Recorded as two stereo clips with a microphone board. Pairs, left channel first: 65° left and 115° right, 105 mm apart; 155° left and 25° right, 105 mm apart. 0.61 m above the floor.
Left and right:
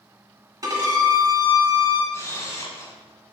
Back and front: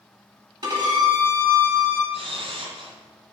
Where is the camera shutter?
5° left, 1.6 m.